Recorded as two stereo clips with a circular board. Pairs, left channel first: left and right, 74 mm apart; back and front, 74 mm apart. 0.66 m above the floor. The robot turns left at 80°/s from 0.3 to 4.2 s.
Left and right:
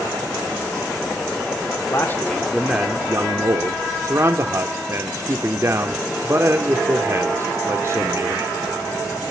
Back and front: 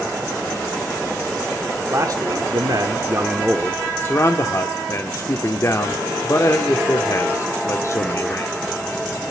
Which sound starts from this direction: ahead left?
A man speaking, at 1.9 s.